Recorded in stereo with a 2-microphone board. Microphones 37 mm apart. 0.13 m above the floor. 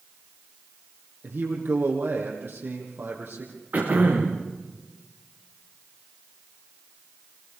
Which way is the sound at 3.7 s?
45° right (ahead or behind).